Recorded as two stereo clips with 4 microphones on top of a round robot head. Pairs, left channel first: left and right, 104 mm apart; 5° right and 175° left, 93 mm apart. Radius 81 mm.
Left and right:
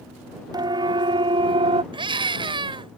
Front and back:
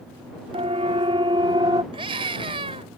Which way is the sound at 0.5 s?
140° right.